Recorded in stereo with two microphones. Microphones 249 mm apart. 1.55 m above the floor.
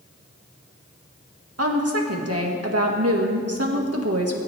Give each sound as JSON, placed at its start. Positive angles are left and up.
{"t": 1.6, "sound": "a woman speaking", "side_deg": -65, "distance_m": 1.9}